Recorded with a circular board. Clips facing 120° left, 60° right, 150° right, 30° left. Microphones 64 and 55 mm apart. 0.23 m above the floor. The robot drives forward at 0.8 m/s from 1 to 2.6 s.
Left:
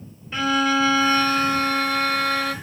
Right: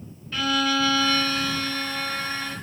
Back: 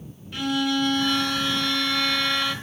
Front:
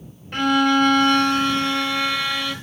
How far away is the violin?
About 1.2 m.